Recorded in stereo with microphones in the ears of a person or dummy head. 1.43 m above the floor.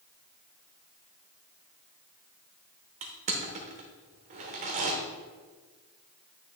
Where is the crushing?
30° right (ahead or behind), 0.9 m.